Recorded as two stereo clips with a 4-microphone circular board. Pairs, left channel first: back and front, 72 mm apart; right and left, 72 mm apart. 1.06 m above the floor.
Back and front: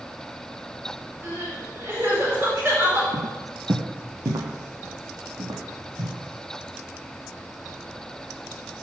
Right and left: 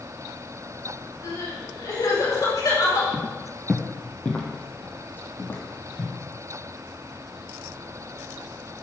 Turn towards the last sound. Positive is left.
turn(degrees=-35)